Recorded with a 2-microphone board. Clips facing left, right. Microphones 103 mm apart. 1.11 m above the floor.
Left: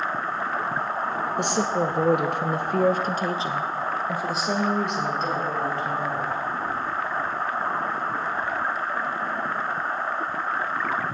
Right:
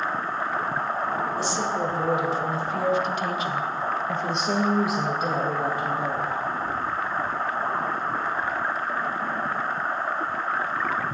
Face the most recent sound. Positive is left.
turn(degrees=-15)  # may be behind; listen again after turning